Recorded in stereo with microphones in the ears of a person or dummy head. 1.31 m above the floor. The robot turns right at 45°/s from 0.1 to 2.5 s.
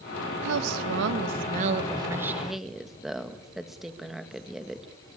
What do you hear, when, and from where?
0.4 s a woman speaking: 95° right, 1.6 m; by 4.8 s straight ahead, 1.6 m